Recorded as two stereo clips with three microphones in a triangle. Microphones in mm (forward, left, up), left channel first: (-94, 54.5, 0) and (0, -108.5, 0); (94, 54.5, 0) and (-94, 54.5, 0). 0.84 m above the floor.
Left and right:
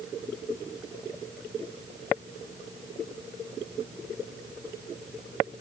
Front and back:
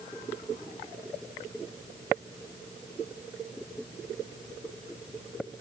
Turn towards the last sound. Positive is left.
No sound to turn to.